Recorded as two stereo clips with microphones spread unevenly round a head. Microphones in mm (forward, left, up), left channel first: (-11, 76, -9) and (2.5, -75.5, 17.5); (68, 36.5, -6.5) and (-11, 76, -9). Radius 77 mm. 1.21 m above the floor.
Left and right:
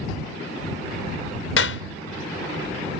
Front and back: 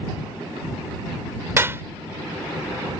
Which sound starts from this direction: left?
A clap, at 1.6 s.